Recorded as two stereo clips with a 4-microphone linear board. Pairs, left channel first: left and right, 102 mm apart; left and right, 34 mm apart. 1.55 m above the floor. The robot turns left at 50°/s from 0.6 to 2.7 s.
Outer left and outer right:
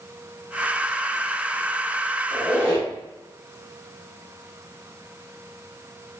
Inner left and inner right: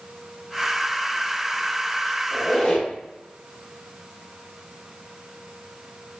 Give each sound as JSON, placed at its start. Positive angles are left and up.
{"t": 2.3, "sound": "a squeak", "side_deg": 15, "distance_m": 1.0}